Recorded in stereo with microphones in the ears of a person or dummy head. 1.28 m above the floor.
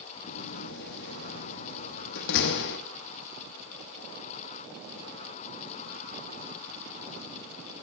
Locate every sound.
0.3 s a door slam: 55° left (ahead or behind), 1.1 m